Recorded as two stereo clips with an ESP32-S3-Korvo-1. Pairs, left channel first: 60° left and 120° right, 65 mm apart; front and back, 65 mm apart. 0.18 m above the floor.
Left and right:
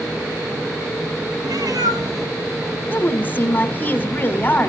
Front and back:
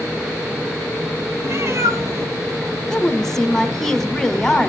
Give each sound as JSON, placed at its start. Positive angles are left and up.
{"t": 1.4, "sound": "a cat meowing", "azimuth_deg": -135, "distance_m": 1.1}
{"t": 2.9, "sound": "a woman speaking", "azimuth_deg": 80, "distance_m": 1.5}